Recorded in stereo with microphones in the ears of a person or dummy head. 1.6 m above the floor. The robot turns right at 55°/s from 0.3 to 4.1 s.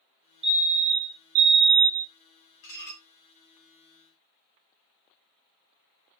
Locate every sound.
0.4 s a fire alarm: 100° right, 0.8 m; by 2.1 s 10° right, 0.8 m
2.6 s dishes clattering: 45° left (ahead or behind), 1.1 m; by 3.0 s 30° left (ahead or behind), 1.1 m